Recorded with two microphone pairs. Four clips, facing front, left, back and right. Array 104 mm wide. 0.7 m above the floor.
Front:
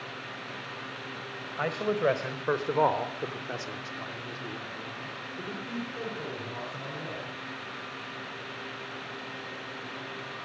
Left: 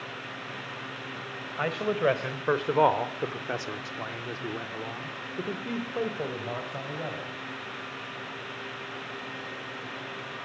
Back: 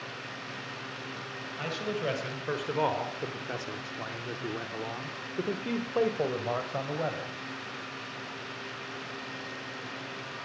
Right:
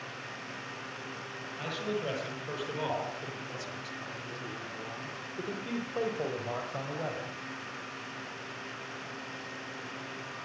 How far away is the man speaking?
About 4 m.